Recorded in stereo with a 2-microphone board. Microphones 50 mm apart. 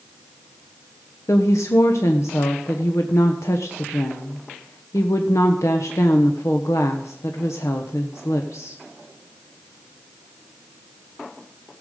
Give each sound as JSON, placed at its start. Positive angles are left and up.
{"t": 1.3, "sound": "a woman speaking", "side_deg": 75, "distance_m": 1.1}